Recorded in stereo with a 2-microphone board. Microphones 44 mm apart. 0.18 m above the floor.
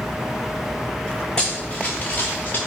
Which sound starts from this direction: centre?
Running footsteps, at 1.4 s.